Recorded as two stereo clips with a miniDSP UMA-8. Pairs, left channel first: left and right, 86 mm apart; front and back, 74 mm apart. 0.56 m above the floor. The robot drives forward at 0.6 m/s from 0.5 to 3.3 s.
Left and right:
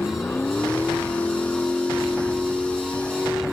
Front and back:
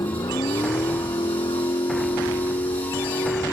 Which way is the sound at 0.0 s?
20° left.